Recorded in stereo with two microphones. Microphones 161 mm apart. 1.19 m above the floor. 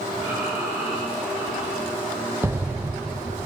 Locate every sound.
0.1 s breathing: 25° right (ahead or behind), 8 m
2.4 s an explosion: 15° right (ahead or behind), 0.6 m